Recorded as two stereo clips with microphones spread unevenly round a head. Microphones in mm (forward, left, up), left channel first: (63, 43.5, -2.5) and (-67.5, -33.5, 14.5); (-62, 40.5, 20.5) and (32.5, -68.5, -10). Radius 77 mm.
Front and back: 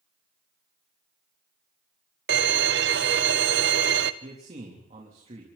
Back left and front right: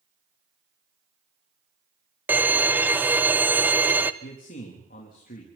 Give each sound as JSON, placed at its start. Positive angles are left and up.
{"t": 2.3, "sound": "a violin", "azimuth_deg": -130, "distance_m": 0.9}
{"t": 4.2, "sound": "a man speaking", "azimuth_deg": 160, "distance_m": 3.5}